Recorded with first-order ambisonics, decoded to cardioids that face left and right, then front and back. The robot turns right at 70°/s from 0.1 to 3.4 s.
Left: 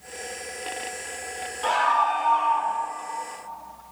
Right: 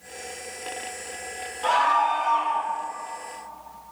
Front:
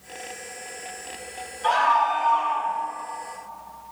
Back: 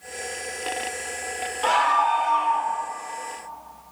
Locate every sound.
1.6 s a scream: 175° left, 3.5 m; by 2.7 s 110° right, 3.5 m